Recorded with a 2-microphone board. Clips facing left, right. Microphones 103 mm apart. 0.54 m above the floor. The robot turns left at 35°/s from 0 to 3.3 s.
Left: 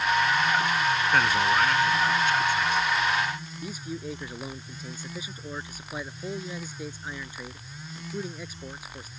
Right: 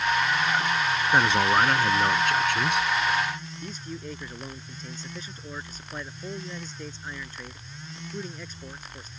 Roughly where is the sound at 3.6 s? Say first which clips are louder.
Left 5 dB; centre.